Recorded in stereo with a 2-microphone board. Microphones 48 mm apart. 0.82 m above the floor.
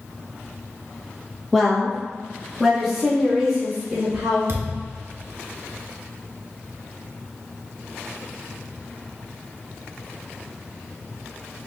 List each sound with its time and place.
1.5 s a woman speaking: 5° left (ahead or behind), 0.9 m; by 4.4 s 10° right (ahead or behind), 3 m
4.5 s a thud: 60° right (ahead or behind), 0.6 m